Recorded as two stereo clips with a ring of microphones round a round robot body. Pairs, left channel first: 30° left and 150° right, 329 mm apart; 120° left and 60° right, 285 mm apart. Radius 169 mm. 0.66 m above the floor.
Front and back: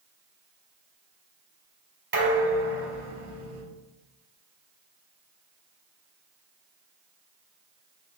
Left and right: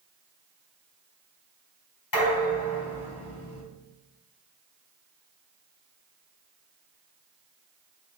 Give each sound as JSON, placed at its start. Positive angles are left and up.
{"t": 2.1, "sound": "dishes clattering", "azimuth_deg": 150, "distance_m": 2.5}